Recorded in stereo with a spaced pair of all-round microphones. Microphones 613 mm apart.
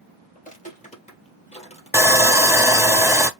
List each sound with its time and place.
0.3 s footsteps: 15° left (ahead or behind), 2.0 m; by 2.9 s 10° left (ahead or behind), 3 m
1.9 s sawing: 5° right (ahead or behind), 0.5 m